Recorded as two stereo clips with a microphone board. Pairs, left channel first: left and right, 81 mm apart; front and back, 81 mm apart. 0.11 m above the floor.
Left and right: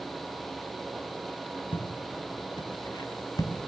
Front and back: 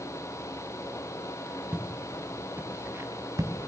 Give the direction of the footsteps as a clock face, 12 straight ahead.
9 o'clock.